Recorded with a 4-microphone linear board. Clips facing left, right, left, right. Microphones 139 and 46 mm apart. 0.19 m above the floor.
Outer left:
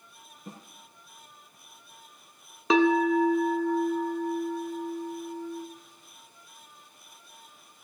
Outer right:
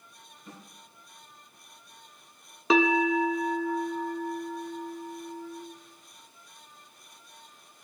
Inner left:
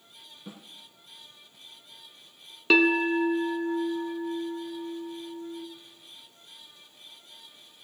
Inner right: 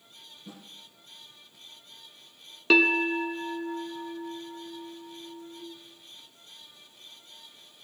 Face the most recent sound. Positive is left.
turn(degrees=0)  # may be behind; listen again after turning